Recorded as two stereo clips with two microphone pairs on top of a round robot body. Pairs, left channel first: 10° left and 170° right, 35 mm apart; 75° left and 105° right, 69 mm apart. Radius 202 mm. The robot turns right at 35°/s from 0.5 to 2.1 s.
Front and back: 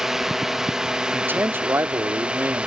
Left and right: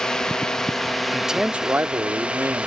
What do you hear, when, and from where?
0.0 s a drone: 120° left; by 2.7 s 175° left
1.1 s a man speaking: 165° left; by 2.7 s 165° right